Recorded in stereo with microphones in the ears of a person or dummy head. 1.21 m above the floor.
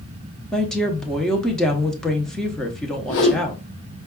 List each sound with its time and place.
0.5 s a woman speaking: centre (ahead or behind), 0.6 m
3.1 s a whoosh: 65° left (ahead or behind), 0.9 m